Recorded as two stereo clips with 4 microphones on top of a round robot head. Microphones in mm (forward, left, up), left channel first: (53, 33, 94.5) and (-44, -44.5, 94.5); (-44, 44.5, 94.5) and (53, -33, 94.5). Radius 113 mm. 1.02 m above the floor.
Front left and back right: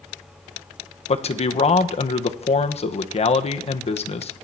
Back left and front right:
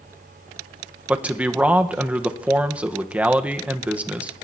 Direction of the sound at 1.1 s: 40° left.